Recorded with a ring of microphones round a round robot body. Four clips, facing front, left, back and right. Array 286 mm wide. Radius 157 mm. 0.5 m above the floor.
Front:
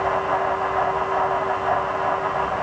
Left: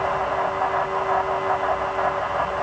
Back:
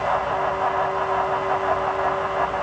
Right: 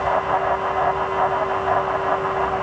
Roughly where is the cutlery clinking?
No cutlery clinking in this recording.